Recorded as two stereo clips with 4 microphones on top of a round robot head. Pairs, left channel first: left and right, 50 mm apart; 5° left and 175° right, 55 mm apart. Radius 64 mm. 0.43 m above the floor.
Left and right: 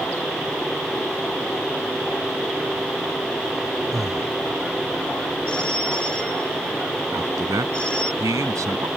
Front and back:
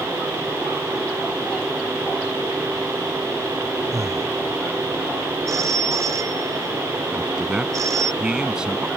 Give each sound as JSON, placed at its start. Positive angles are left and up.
{"t": 3.9, "sound": "breathing", "azimuth_deg": -175}
{"t": 5.5, "sound": "a phone ringing", "azimuth_deg": 165}
{"t": 7.1, "sound": "a man speaking", "azimuth_deg": -95}